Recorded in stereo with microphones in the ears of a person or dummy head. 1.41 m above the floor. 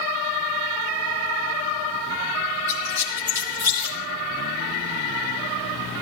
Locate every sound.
2.7 s a squeak: 20° right (ahead or behind), 5.5 m